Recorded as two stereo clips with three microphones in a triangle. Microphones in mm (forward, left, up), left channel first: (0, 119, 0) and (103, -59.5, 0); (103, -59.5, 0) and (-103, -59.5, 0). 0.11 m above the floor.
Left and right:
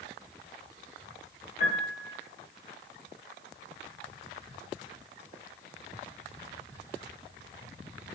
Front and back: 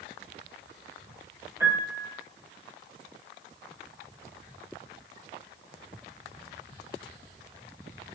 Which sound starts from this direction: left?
A piano, at 1.6 s.